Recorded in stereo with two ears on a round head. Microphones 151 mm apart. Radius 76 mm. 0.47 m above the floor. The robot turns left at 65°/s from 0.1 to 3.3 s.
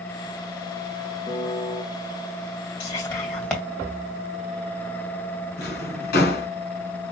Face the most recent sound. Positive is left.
turn(degrees=65)  # may be behind; listen again after turning